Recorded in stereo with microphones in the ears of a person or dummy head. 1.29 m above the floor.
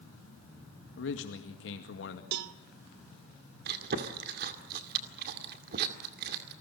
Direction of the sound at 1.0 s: 55° left (ahead or behind).